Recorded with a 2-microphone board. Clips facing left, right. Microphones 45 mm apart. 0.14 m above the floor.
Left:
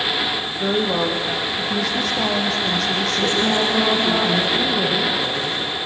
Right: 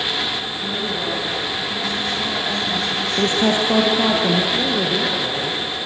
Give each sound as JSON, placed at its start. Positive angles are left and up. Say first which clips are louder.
{"t": 0.6, "sound": "a woman speaking", "louder": "left 7 dB", "side_deg": 60, "distance_m": 6.0}
{"t": 3.2, "sound": "a woman speaking", "louder": "right 3 dB", "side_deg": -35, "distance_m": 3.5}
{"t": 4.5, "sound": "a woman speaking", "louder": "even", "side_deg": -10, "distance_m": 3.0}